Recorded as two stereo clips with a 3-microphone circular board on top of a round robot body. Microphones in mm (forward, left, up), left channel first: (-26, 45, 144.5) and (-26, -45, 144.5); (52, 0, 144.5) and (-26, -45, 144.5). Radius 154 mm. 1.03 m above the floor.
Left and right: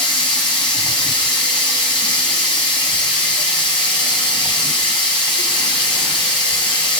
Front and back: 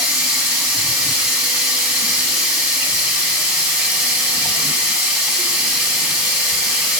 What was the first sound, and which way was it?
Running water, 130° left.